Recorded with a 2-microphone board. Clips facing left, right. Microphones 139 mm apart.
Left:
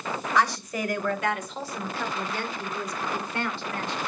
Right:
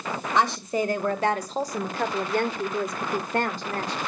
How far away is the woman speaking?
About 2.5 m.